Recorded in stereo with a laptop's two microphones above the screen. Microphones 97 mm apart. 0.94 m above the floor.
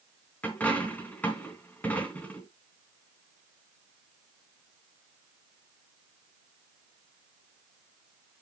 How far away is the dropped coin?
About 3 m.